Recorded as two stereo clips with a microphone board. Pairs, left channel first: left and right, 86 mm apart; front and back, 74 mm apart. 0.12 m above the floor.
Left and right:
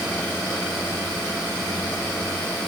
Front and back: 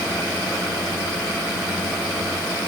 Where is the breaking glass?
I don't hear breaking glass.